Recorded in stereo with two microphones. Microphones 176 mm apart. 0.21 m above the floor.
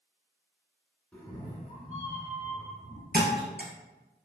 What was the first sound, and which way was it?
A cat meowing, 5° left (ahead or behind).